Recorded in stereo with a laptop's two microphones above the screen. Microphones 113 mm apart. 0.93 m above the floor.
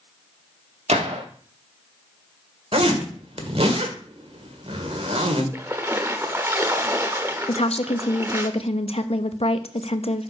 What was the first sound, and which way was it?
A gunshot, 75° right (ahead or behind).